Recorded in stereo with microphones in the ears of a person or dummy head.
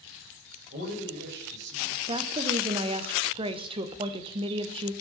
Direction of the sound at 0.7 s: 65° right (ahead or behind).